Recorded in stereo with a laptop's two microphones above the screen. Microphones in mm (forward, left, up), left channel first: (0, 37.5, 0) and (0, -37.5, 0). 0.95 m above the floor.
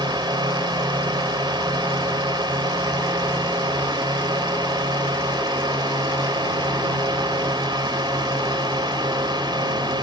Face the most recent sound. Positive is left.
turn(degrees=-75)  # may be behind; listen again after turning